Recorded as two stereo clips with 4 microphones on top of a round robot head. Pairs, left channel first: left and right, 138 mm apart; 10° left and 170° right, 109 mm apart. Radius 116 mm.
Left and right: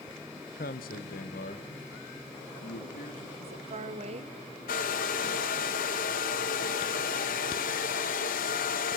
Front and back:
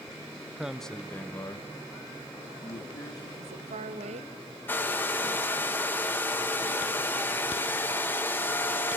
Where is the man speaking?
120° left, 0.8 m; by 3.3 s 65° left, 3 m.